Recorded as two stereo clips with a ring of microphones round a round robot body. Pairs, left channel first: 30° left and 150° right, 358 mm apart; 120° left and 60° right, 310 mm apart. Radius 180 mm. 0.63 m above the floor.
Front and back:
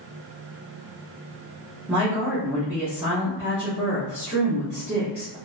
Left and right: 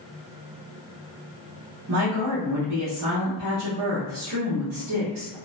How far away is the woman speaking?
About 1.0 m.